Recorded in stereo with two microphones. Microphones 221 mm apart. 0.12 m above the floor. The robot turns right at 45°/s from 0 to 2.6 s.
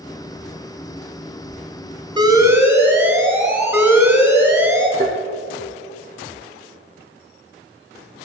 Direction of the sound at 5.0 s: 35° right (ahead or behind).